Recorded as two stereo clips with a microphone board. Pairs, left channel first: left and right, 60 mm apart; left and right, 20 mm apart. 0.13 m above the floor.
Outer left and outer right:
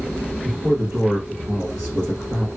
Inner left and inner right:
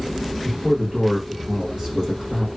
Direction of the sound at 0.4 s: 30° right (ahead or behind).